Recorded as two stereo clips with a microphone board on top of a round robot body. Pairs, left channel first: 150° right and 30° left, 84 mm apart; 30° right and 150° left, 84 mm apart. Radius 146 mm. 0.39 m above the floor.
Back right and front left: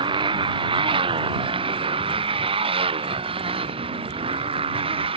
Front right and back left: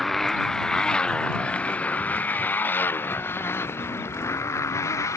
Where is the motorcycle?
55° left; by 5.2 s 25° left.